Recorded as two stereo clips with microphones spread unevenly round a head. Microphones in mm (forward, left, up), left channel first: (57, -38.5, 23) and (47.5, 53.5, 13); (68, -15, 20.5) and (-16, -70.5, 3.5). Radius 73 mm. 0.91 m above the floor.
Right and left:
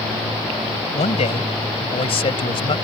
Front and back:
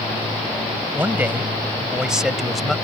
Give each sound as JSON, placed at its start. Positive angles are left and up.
{"t": 0.9, "sound": "a man speaking", "azimuth_deg": -75}